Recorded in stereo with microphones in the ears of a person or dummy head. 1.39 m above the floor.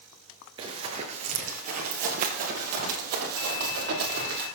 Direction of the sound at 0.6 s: 25° right (ahead or behind).